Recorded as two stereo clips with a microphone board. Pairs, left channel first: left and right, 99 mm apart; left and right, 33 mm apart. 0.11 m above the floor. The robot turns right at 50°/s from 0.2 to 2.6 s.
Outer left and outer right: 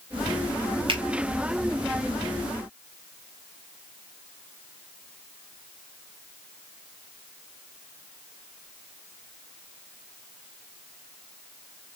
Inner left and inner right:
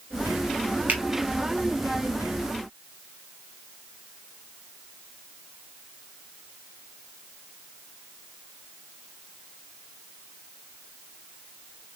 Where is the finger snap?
60° right (ahead or behind), 2.5 m.